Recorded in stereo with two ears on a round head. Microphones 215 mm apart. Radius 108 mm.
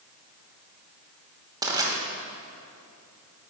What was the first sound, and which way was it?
Crushing, 15° right (ahead or behind).